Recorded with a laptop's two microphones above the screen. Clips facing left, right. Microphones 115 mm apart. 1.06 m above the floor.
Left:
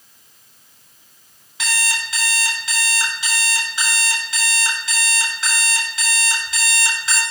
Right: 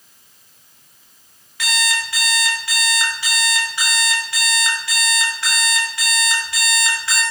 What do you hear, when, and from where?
1.6 s an alarm clock: 25° left (ahead or behind), 4 m